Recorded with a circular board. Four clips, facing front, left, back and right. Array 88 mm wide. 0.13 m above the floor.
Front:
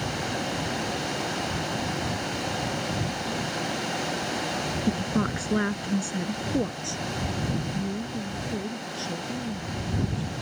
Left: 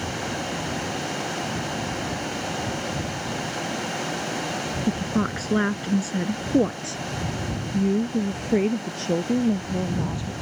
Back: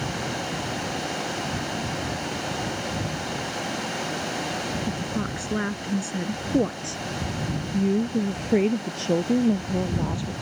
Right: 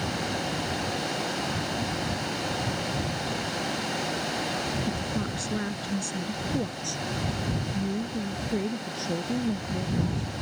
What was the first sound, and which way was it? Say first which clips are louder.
A woman speaking: left 6 dB, front 2 dB; 60° left.